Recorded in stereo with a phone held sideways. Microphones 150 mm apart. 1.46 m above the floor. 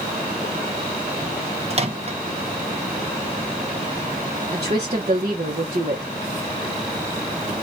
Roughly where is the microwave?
Right.